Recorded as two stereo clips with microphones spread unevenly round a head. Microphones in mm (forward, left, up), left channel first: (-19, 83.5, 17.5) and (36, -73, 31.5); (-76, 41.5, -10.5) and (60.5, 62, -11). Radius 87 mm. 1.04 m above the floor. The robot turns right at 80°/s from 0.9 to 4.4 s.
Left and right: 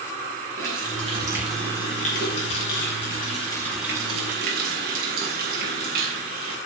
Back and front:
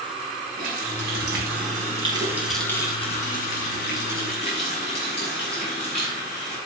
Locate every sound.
0.6 s a running tap: 30° right, 6 m; by 6.6 s 110° right, 6 m